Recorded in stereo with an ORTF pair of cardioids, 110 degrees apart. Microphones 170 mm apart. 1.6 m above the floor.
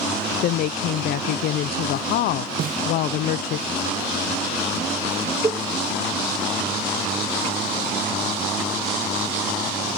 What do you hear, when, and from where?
0.4 s a woman speaking: 65° left
2.6 s a snare drum: 55° right
5.4 s a cowbell: 20° right